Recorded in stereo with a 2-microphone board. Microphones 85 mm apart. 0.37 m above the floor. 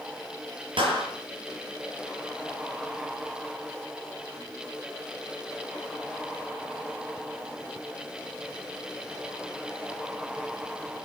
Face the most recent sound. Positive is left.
turn(degrees=-80)